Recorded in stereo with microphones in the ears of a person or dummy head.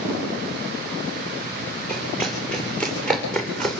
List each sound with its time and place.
1.9 s running footsteps: 5° left (ahead or behind), 9 m; by 3.8 s centre (ahead or behind), 8 m